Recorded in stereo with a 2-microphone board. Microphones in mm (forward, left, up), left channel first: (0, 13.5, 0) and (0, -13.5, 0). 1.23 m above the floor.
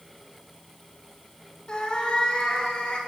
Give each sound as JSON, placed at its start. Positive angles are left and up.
{"t": 1.7, "sound": "a cat meowing", "side_deg": 40, "distance_m": 1.8}